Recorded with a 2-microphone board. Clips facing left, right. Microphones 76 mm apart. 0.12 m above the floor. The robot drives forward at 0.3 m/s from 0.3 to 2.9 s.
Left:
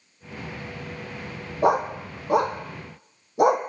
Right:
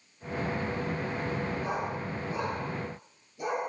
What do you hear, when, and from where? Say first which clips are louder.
1.6 s a dog barking: left 11 dB; 75° left (ahead or behind), 1.7 m